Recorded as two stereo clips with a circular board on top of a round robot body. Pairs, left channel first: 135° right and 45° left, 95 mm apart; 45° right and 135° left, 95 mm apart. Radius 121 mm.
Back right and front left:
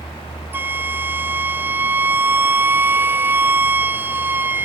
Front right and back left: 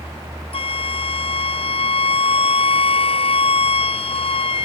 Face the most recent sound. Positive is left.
turn(degrees=-25)